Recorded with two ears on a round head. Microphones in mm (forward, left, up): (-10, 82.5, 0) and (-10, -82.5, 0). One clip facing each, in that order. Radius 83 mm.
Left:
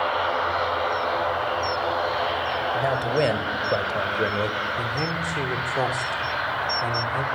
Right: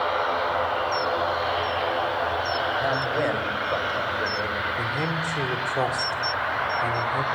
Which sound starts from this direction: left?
A man speaking, at 2.7 s.